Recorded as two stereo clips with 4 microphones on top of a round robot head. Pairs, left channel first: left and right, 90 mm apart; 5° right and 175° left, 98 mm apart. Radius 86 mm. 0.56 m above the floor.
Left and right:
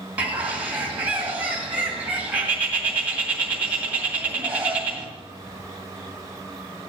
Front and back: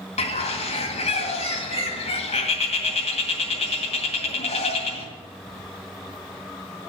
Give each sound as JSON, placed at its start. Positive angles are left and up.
{"t": 0.2, "sound": "a bird", "azimuth_deg": -15, "distance_m": 2.0}